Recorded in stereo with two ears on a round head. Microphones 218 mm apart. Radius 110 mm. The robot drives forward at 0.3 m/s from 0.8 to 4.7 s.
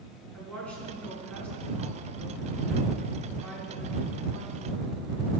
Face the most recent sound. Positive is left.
turn(degrees=5)  # may be behind; listen again after turning